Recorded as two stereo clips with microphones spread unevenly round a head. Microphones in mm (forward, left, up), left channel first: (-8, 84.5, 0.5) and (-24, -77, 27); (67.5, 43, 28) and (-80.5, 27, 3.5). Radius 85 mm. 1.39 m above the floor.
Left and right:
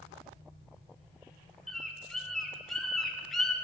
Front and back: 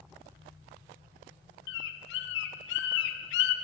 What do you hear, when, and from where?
1.7 s a bird: straight ahead, 0.7 m